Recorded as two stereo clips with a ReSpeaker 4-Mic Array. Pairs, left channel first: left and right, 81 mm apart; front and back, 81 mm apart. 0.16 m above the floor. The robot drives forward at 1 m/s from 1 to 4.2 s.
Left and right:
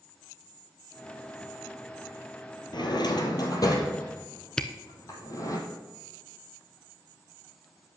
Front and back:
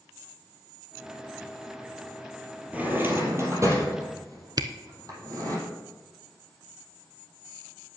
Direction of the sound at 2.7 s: 110° left.